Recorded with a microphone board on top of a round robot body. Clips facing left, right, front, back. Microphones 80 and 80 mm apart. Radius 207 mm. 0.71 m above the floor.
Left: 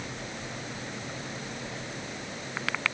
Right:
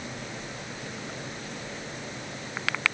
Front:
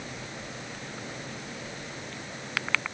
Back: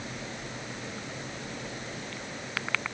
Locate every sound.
Only background noise.